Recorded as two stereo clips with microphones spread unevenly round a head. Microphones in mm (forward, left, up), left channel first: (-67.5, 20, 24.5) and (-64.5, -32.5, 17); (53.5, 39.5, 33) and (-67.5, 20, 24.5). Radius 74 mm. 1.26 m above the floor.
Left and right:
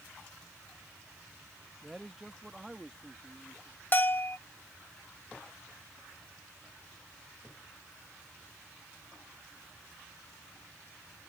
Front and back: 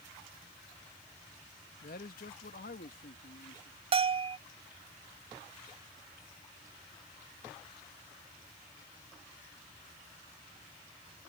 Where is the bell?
145° left.